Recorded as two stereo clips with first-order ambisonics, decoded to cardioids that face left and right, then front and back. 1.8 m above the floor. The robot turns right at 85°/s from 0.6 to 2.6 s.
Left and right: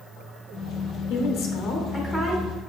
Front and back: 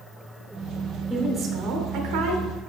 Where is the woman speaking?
85° left, 0.9 m; by 2.5 s 155° right, 0.9 m.